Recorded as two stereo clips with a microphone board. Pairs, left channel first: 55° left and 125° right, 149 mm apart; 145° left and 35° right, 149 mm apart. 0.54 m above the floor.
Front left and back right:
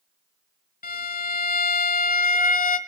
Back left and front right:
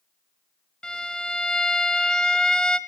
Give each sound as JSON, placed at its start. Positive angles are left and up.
{"t": 0.8, "sound": "a violin", "azimuth_deg": 60, "distance_m": 1.3}